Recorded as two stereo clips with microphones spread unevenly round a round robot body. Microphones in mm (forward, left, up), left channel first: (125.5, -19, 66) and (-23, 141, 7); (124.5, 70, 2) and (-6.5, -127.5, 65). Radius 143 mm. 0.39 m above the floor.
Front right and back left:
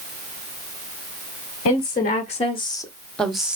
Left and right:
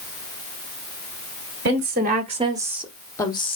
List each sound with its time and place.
1.6 s a woman speaking: 95° right, 1.3 m; by 3.6 s 70° left, 1.3 m